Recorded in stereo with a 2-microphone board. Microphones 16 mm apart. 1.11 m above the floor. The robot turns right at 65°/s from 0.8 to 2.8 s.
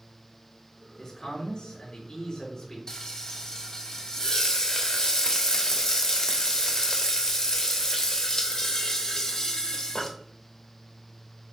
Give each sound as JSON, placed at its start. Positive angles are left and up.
{"t": 1.0, "sound": "a man speaking", "azimuth_deg": 30, "distance_m": 3.5}
{"t": 2.9, "sound": "frying", "side_deg": 30, "distance_m": 1.2}